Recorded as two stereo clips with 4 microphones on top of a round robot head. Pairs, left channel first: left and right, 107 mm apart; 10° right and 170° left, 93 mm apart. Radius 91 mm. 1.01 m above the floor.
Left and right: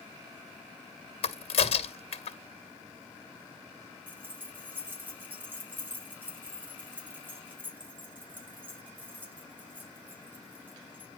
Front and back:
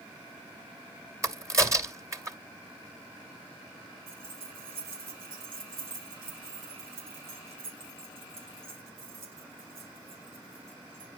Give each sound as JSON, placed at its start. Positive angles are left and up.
{"t": 1.2, "sound": "a crack", "azimuth_deg": 115, "distance_m": 2.0}
{"t": 4.1, "sound": "keys jangling", "azimuth_deg": -165, "distance_m": 3.0}